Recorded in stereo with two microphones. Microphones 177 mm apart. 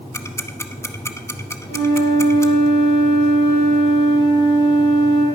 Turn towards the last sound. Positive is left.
turn(degrees=80)